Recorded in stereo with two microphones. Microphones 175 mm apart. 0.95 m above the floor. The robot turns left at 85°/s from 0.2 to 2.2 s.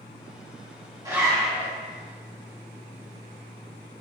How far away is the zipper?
About 1.0 m.